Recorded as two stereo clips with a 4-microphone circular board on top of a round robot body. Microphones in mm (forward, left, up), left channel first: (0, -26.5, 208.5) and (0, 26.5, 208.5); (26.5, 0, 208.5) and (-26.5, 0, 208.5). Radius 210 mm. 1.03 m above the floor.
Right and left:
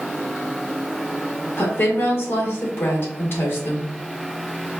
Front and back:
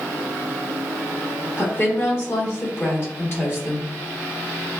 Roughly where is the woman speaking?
Ahead right.